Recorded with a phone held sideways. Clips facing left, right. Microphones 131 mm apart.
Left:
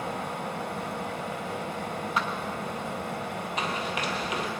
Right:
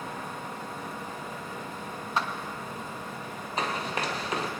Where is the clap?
30° right (ahead or behind), 1.3 m.